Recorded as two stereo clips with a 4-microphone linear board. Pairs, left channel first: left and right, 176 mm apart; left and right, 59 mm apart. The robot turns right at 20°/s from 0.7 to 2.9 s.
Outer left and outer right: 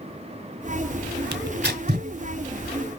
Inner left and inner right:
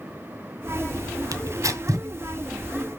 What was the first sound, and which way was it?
Tearing paper, 85° right.